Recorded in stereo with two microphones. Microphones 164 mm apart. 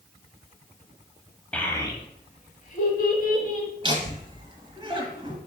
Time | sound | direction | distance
1.5 | a child speaking | 5° left (ahead or behind) | 0.8 m
3.8 | laughter | 30° right (ahead or behind) | 1.1 m